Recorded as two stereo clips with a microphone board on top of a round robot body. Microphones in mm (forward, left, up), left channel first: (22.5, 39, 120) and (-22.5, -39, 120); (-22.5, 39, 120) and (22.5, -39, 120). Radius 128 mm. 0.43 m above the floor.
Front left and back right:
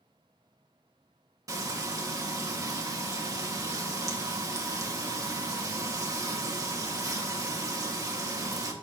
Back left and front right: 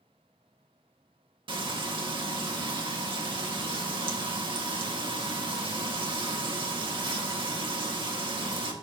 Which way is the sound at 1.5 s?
70° right.